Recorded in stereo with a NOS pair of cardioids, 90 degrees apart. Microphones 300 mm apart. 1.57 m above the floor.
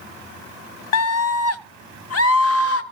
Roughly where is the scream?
Ahead left.